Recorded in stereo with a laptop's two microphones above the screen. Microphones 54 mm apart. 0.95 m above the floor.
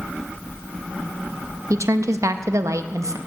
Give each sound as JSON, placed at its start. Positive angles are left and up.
{"t": 1.7, "sound": "a woman speaking", "side_deg": -70, "distance_m": 0.7}